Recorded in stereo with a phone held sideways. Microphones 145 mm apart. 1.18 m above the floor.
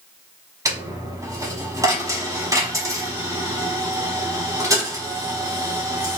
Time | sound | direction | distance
0.7 | a dropped coin | 20° right (ahead or behind) | 0.9 m